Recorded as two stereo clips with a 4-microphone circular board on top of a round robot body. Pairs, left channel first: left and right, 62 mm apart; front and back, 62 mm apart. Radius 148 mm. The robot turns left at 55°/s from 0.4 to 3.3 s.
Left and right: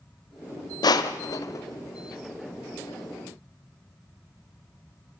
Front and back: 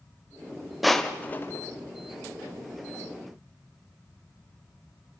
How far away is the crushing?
About 1.0 m.